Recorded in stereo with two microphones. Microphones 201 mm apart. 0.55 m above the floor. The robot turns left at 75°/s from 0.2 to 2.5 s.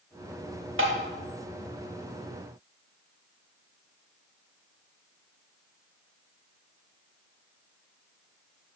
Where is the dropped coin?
No dropped coin in this recording.